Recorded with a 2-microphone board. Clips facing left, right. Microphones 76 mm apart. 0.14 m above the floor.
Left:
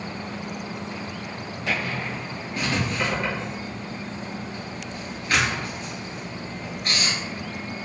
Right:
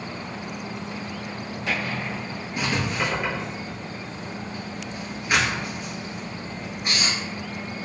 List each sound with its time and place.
2.6 s writing: 15° right (ahead or behind), 1.2 m